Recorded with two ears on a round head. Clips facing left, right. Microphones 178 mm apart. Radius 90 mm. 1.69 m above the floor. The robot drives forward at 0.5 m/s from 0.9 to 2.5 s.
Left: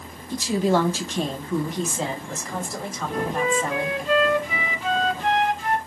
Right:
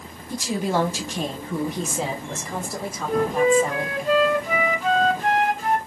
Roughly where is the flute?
Right.